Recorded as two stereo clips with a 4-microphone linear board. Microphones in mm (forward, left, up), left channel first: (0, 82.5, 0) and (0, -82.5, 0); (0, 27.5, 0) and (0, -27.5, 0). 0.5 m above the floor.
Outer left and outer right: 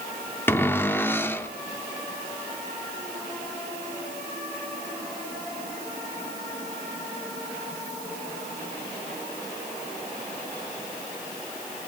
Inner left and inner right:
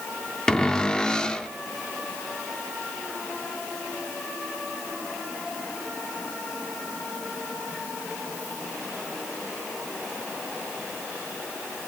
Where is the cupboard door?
15° left (ahead or behind), 0.6 m.